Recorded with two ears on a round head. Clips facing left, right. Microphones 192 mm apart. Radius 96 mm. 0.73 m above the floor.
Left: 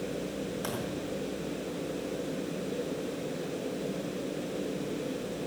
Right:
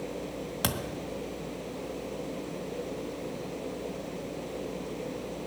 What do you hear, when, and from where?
0.6 s a thud: 80° right, 1.8 m